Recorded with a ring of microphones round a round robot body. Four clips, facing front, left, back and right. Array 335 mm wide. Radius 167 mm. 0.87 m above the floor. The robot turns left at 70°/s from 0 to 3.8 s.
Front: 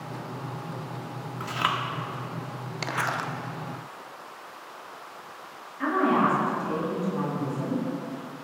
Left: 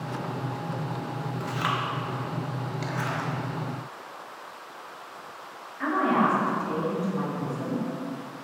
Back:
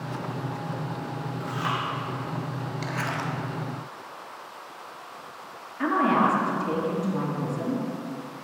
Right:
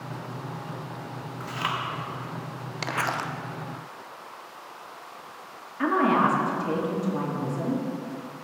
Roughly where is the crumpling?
Ahead right.